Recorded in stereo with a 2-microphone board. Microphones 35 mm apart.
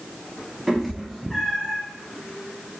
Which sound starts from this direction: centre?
A cat meowing, at 0.7 s.